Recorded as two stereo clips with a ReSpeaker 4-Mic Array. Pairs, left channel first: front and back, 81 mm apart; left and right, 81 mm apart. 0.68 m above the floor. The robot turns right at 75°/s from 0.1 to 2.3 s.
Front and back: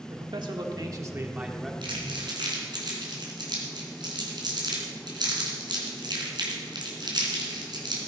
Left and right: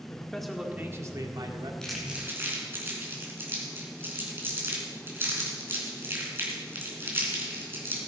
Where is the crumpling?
170° left, 3.5 m; by 8.0 s 150° right, 3.5 m.